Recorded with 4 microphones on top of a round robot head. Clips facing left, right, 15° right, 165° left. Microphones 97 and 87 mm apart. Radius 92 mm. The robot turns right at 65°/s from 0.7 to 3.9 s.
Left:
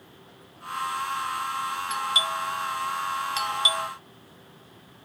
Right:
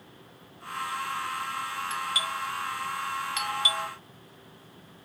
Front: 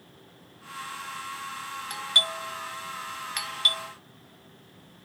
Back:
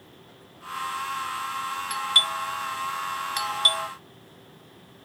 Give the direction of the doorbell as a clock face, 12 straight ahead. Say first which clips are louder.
Left 4 dB, back 3 dB; 11 o'clock.